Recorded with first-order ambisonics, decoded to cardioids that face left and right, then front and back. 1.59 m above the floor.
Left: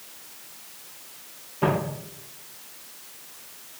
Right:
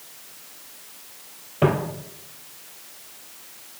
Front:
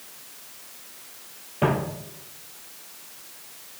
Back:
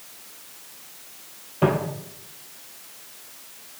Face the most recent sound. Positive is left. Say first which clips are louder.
# right 3 dB, back 2 dB
turn(degrees=-80)